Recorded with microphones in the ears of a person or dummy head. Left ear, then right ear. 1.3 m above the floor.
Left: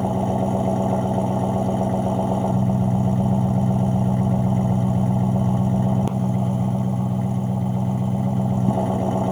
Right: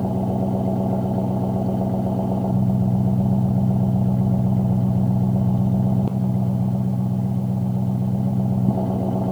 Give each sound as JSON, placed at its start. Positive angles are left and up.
{"t": 0.0, "sound": "an engine running", "side_deg": 55}